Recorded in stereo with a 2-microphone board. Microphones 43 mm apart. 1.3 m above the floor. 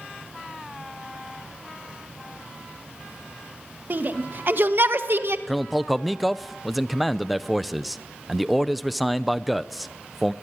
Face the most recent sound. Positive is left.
turn(degrees=0)  # may be behind; listen again after turning